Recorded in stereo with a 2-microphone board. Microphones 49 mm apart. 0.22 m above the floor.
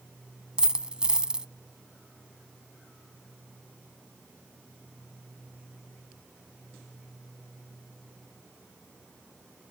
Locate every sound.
0.6 s a dropped coin: 20° right (ahead or behind)